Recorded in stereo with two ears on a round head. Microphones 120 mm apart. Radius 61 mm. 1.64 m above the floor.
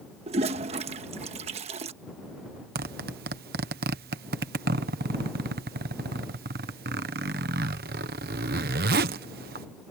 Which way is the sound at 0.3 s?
50° right (ahead or behind).